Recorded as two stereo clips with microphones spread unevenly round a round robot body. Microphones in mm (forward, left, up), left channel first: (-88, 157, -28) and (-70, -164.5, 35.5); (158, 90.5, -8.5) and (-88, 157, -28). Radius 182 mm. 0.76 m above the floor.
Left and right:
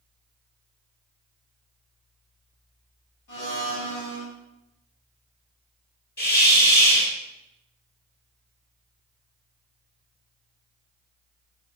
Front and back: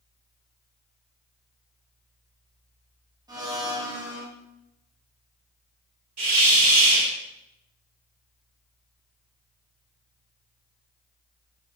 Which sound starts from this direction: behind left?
A hiss, at 6.2 s.